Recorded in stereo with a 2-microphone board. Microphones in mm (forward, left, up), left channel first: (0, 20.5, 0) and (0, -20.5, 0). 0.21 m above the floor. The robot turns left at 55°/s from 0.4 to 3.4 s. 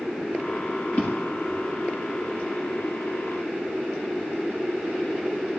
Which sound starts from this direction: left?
A drawer, at 0.9 s.